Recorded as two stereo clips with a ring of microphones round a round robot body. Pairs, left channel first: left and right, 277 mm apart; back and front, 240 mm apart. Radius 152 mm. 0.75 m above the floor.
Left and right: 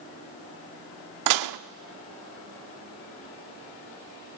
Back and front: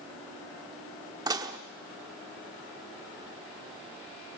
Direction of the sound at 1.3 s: 75° right.